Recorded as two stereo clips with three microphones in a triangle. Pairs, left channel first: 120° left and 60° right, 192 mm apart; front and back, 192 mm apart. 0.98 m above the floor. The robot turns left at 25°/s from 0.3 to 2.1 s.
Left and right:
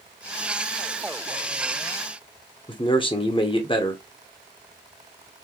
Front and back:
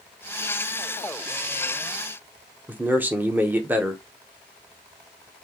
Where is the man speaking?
110° left, 0.8 m.